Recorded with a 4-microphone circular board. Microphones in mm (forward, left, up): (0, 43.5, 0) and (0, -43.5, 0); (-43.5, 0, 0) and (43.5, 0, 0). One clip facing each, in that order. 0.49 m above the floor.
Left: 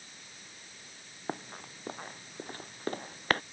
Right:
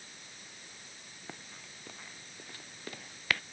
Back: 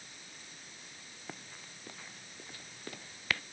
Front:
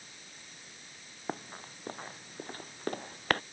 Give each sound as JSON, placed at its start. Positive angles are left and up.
{"t": 1.3, "sound": "running footsteps", "azimuth_deg": 45}